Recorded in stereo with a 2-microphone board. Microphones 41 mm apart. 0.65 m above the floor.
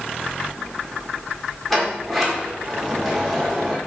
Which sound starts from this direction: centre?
A sliding door, at 1.7 s.